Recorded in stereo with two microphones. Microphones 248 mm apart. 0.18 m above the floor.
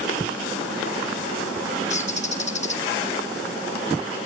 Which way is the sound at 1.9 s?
30° left (ahead or behind).